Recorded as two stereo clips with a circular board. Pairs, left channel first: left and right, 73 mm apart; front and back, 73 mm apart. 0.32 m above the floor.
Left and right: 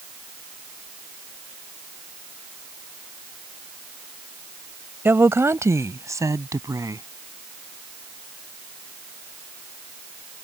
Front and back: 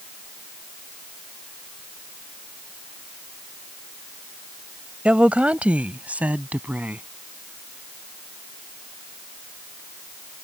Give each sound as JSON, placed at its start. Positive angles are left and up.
{"t": 5.0, "sound": "a woman speaking", "azimuth_deg": -120}